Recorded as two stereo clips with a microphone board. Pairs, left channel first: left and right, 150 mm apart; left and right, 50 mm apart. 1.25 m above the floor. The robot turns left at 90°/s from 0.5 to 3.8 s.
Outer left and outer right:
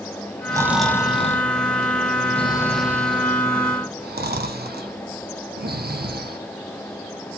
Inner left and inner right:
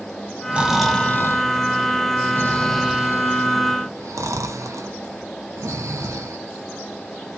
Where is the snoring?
25° right (ahead or behind), 0.7 m; by 6.4 s 80° right, 0.7 m.